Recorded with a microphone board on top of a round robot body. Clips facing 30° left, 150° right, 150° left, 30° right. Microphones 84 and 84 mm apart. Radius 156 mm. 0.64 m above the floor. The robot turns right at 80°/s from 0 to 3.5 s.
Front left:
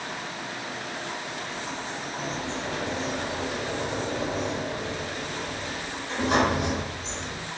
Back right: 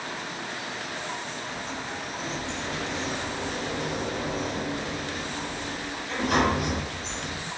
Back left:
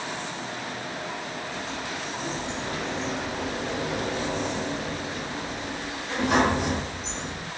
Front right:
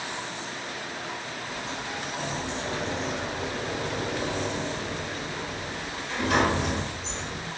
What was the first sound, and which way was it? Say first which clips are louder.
A sliding door: even, back left 1 dB; 75° right.